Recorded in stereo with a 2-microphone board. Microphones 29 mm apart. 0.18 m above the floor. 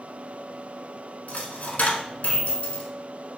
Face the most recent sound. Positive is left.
turn(degrees=55)  # may be behind; listen again after turning